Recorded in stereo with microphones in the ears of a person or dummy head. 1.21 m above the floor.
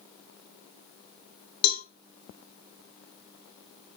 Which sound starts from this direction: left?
A cowbell, at 1.6 s.